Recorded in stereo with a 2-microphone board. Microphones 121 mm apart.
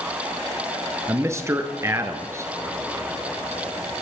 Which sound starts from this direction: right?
A man speaking, at 1.1 s.